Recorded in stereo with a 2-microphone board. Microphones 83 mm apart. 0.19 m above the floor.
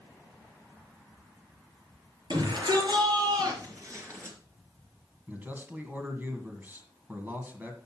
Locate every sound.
2.3 s a shout: 65° right (ahead or behind), 4.5 m; by 4.4 s 30° right (ahead or behind), 3.5 m
5.3 s a man speaking: 20° right (ahead or behind), 1.8 m